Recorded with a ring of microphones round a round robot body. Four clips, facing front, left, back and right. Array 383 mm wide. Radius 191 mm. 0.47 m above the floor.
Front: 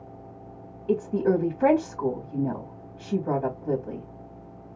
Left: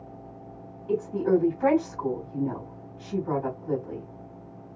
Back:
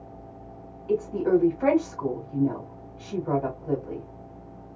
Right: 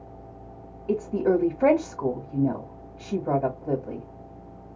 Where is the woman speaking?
50° right, 2 m.